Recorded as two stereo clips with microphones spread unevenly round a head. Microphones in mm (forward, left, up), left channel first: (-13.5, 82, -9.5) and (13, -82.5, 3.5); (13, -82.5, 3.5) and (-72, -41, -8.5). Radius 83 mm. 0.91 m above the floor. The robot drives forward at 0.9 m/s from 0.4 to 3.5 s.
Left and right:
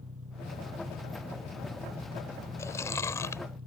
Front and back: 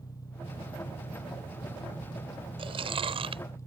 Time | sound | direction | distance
0.0 | an engine running | 75° right | ?
2.6 | chewing | 175° left | ?